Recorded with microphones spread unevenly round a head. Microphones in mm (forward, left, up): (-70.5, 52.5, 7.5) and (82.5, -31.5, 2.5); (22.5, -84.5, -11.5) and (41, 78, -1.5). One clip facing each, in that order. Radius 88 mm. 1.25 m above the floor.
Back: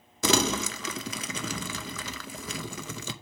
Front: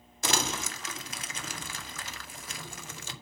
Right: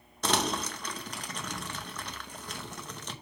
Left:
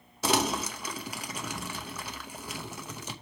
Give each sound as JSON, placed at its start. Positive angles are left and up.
{"t": 0.2, "sound": "crumpling", "azimuth_deg": 165, "distance_m": 0.7}